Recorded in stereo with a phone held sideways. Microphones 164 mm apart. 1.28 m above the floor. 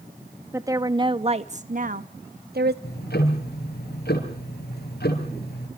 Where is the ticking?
80° left, 5.5 m.